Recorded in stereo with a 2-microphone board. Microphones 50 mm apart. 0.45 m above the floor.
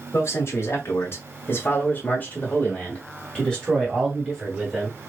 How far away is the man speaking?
About 2 m.